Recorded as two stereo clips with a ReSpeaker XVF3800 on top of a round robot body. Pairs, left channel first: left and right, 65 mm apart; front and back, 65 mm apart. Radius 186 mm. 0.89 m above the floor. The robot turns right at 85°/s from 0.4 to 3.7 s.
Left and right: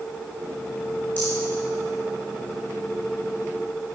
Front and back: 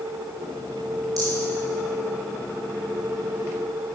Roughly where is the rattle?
Behind left.